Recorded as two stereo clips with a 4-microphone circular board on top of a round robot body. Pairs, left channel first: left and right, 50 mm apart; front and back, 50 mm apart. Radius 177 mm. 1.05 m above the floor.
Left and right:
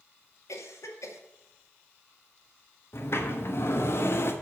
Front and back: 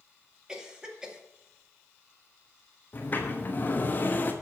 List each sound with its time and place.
0.5 s a cough: 100° left, 2 m
2.9 s a sliding door: 50° left, 1.1 m